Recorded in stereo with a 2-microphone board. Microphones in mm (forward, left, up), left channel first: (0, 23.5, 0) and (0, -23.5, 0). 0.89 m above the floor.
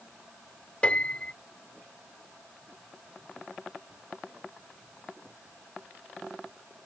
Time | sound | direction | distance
0.8 | a piano | 25° left (ahead or behind) | ?